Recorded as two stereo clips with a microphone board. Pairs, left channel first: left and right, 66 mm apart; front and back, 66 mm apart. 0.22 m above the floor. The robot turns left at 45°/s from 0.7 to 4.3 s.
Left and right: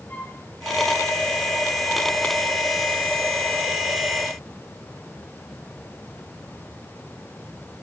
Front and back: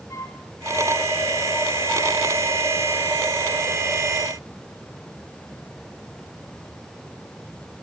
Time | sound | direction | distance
0.1 | a flute | 25° left | 9.5 m